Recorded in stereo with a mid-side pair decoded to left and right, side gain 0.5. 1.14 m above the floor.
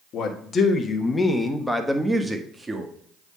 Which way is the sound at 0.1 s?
60° left.